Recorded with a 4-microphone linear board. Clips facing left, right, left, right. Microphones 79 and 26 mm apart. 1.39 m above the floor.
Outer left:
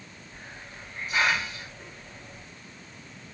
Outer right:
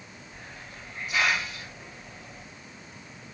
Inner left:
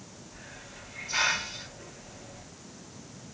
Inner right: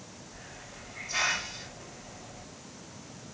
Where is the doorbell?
No doorbell in this recording.